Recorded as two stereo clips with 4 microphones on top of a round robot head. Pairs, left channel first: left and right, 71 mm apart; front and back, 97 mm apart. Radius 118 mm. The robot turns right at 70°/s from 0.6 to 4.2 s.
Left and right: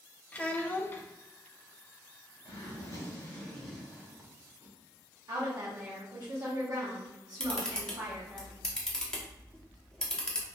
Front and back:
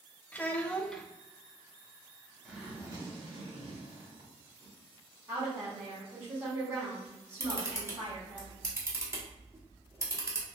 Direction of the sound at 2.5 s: 95° left.